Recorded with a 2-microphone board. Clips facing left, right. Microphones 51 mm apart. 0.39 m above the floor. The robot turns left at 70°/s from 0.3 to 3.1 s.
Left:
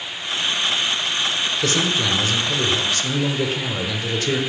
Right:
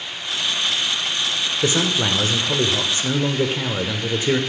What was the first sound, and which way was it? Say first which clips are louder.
A man speaking: right 2 dB; 15° right (ahead or behind).